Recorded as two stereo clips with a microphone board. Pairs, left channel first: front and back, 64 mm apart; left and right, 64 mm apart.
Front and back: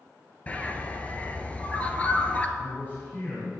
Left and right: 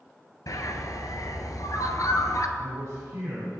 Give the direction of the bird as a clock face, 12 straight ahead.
10 o'clock.